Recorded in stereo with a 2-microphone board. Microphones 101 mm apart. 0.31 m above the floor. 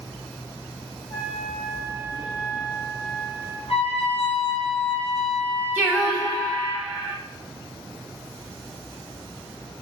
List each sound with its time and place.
1.1 s a trumpet: 45° left (ahead or behind), 1.7 m
3.7 s a trumpet: 80° left, 1.4 m
5.8 s singing: 25° right (ahead or behind), 1.4 m